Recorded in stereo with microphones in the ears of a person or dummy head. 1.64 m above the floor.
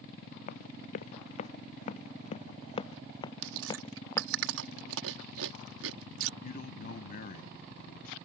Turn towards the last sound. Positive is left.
turn(degrees=50)  # may be behind; listen again after turning